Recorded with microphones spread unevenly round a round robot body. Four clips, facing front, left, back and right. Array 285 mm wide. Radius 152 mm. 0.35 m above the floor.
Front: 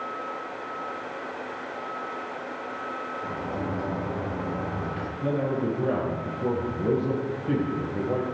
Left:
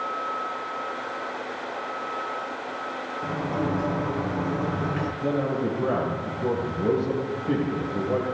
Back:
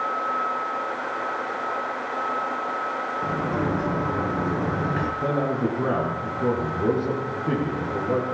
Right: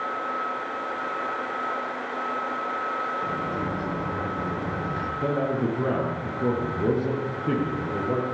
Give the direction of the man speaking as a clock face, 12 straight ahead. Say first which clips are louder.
Right 1 dB, even; 4 o'clock.